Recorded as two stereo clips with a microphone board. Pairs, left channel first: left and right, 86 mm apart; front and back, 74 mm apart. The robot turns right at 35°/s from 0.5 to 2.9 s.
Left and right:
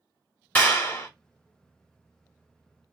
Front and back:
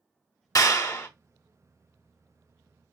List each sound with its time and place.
0.6 s a clap: 25° left, 1.1 m; by 1.1 s 45° left, 1.1 m